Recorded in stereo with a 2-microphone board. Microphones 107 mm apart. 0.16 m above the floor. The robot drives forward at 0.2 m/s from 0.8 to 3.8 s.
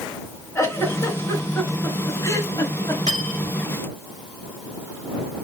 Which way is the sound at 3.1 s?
35° left (ahead or behind).